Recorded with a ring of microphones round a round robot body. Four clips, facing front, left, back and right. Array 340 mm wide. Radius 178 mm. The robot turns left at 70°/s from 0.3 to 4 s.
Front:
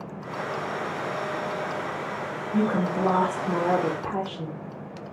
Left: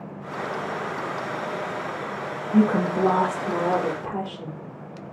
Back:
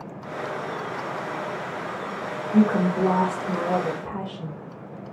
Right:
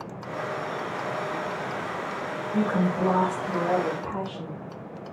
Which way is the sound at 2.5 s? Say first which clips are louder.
Left 5 dB, back 4 dB; 110° left.